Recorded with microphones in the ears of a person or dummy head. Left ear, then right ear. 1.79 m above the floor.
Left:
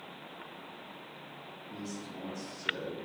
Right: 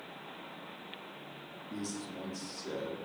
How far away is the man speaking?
About 1.0 m.